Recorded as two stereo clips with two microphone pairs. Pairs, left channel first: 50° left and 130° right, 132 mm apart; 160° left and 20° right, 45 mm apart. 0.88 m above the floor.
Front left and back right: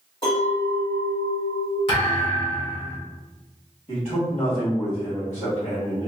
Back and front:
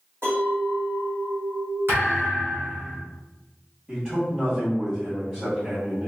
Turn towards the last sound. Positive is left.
turn(degrees=60)